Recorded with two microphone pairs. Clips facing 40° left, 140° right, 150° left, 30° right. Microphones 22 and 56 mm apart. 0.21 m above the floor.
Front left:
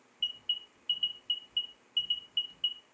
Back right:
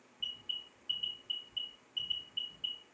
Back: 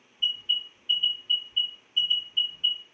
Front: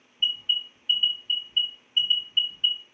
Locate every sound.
0.2 s an alarm: 15° right, 2.5 m